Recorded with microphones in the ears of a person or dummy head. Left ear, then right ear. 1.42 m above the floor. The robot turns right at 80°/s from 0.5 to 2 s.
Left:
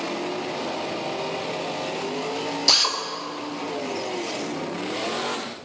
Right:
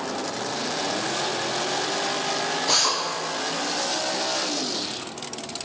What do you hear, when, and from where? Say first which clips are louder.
2.7 s a drill: left 4 dB; 40° left (ahead or behind), 1.0 m